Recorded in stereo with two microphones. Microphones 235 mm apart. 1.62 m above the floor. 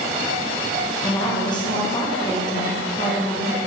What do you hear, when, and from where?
1.0 s a woman speaking: 20° left (ahead or behind), 1.6 m